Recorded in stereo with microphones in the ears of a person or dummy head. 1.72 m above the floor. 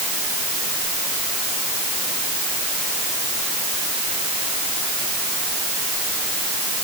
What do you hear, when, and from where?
Only background noise.